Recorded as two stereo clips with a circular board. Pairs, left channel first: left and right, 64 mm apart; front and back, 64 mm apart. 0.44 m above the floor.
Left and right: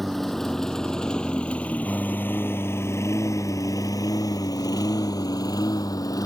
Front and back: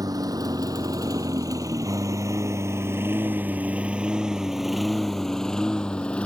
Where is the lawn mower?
175° left; by 6.3 s 70° left.